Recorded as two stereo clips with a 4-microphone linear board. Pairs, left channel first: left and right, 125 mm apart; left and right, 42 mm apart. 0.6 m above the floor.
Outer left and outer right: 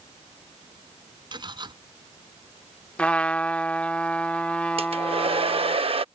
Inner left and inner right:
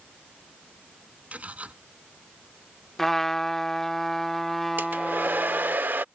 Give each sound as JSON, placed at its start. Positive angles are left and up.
{"t": 1.3, "sound": "cutlery clinking", "side_deg": -40}
{"t": 3.0, "sound": "a trumpet", "side_deg": 10}
{"t": 4.8, "sound": "a hair dryer", "side_deg": -50}